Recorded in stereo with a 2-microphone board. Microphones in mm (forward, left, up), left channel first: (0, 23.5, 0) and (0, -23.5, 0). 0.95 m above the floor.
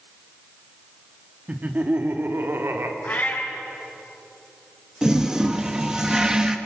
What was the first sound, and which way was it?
Laughter, 30° right (ahead or behind).